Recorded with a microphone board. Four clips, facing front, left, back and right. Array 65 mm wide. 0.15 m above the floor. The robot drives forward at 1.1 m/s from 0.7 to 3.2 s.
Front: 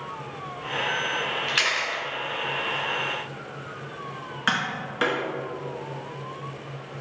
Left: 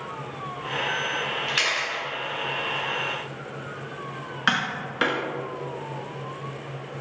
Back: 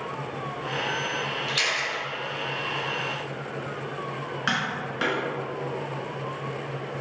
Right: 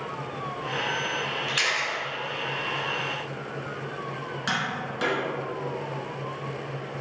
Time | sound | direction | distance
1.5 | a camera shutter | 20° left | 1.7 m
4.5 | tapping | 70° left | 1.4 m